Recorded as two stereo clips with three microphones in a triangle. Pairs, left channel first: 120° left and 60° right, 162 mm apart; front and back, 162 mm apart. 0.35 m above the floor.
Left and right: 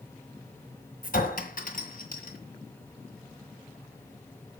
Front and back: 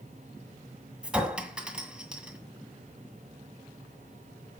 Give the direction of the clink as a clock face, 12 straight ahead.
9 o'clock.